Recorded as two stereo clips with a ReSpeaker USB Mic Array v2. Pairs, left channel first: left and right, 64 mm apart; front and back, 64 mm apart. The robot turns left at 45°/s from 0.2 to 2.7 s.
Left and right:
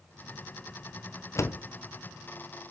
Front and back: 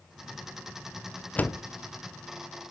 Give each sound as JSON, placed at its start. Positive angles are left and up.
{"t": 1.4, "sound": "a door slam", "azimuth_deg": 60, "distance_m": 0.5}